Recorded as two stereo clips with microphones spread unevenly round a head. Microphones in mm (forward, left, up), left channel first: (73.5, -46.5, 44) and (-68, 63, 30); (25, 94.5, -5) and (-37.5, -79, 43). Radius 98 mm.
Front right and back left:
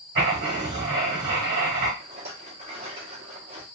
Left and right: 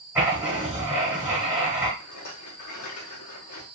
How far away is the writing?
About 1.2 m.